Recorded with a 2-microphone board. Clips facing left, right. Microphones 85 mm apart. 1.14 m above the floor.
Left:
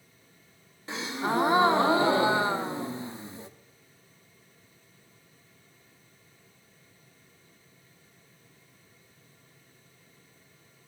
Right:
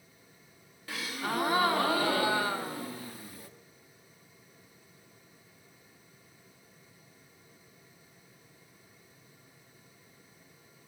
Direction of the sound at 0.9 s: 25° left (ahead or behind).